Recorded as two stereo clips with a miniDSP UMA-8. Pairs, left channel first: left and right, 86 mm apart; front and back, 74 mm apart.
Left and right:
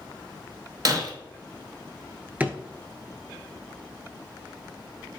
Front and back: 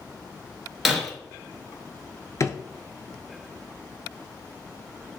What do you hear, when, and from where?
0.8 s breaking glass: 95° right, 0.9 m
2.4 s a drawer: 25° right, 0.6 m